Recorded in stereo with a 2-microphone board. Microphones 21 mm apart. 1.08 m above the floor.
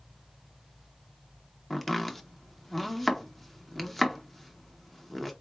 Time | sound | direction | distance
1.7 | chopping | 20° left (ahead or behind) | 0.7 m